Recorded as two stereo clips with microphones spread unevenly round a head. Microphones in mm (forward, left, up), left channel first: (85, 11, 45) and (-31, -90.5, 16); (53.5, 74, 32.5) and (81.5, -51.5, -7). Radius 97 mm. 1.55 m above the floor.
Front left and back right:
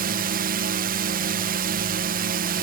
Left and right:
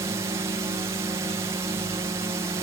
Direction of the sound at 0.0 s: 140° right.